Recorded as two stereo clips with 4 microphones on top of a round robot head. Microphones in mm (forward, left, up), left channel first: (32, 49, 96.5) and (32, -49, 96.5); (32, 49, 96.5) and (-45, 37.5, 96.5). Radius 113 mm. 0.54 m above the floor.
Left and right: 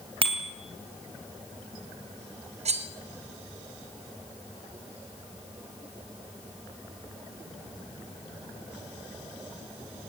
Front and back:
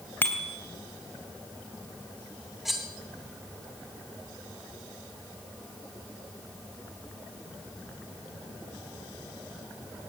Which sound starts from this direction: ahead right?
A bicycle bell, at 0.2 s.